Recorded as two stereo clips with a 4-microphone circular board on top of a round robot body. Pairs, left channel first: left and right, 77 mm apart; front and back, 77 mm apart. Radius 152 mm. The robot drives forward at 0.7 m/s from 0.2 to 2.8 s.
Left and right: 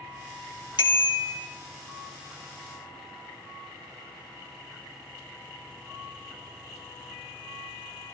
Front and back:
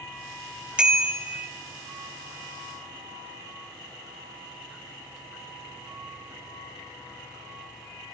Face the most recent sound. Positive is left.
turn(degrees=135)